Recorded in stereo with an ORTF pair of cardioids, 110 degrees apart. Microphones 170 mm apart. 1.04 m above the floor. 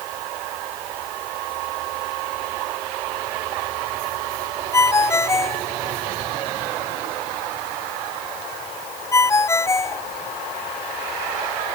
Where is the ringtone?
15° left.